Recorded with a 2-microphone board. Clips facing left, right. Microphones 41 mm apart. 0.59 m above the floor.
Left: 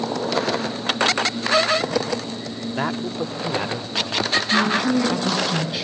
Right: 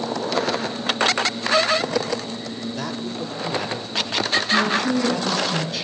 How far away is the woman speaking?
About 5 m.